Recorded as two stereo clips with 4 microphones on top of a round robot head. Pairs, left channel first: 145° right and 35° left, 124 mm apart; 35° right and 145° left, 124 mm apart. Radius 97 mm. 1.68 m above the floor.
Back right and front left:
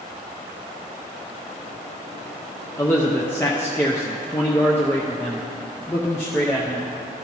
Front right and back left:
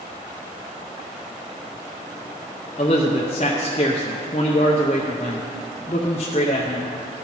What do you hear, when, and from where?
2.8 s a man speaking: 70° right, 0.5 m